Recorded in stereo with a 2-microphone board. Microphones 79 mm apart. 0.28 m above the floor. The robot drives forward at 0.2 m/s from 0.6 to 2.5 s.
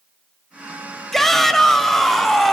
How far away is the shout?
About 0.9 m.